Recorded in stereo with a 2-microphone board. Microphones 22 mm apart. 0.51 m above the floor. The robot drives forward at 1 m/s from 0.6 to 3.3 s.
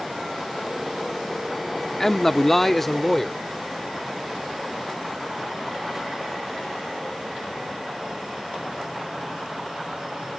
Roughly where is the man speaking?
Left.